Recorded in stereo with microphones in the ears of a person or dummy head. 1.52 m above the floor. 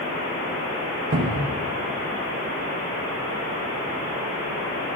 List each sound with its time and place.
1.1 s a cupboard door: 50° right (ahead or behind), 0.8 m